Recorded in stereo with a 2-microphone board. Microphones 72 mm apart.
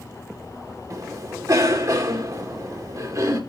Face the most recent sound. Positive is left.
turn(degrees=-50)  # may be behind; listen again after turning